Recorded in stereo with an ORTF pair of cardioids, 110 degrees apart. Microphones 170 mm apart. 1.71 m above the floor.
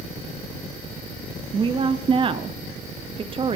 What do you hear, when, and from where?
1.5 s a woman speaking: 30° right, 0.9 m